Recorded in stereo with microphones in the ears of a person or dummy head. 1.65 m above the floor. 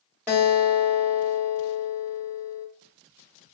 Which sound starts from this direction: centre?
A guitar, at 0.3 s.